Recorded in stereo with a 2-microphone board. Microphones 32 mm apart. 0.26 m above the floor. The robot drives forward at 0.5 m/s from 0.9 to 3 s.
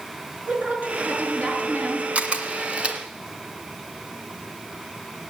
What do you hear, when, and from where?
0.5 s a woman speaking: 50° right (ahead or behind), 4.5 m; by 2.0 s 45° right (ahead or behind), 4.5 m
2.1 s a camera shutter: 40° right (ahead or behind), 1.5 m; by 3.0 s 35° right (ahead or behind), 1.8 m